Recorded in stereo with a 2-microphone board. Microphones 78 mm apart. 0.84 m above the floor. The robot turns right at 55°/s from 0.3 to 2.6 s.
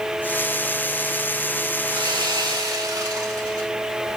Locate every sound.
1.9 s sawing: 95° right, 3.5 m; by 3.7 s 55° right, 3.5 m